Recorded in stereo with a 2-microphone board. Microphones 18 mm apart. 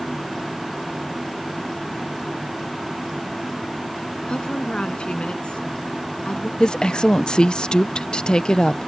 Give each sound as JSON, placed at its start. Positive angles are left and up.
{"t": 4.3, "sound": "a woman speaking", "side_deg": 75}
{"t": 6.6, "sound": "a woman speaking", "side_deg": 55}